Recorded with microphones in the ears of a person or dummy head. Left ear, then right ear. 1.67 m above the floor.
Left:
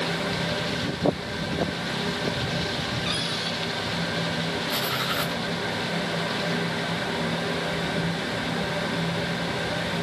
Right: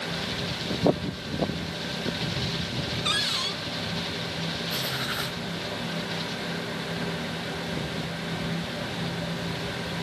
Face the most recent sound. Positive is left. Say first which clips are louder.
# left 3 dB
turn(degrees=5)  # may be behind; listen again after turning